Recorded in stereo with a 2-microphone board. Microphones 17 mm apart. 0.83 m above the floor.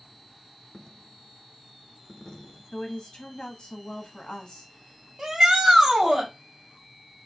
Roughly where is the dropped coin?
Left.